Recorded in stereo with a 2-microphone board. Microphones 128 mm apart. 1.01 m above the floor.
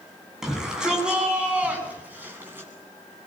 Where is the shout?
5° right (ahead or behind), 9 m; by 2.7 s 15° right (ahead or behind), 9 m.